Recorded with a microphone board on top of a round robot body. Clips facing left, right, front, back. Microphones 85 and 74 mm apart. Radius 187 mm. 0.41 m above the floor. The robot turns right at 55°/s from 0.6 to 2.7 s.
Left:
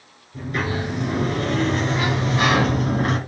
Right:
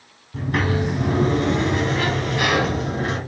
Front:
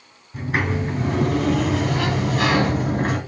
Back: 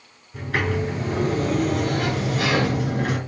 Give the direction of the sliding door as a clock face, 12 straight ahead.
2 o'clock.